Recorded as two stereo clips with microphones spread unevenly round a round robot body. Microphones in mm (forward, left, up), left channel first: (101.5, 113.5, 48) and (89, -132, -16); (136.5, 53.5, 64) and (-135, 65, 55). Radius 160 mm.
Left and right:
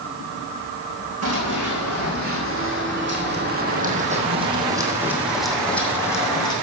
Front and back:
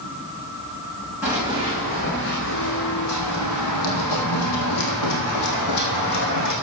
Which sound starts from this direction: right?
Running footsteps, at 1.2 s.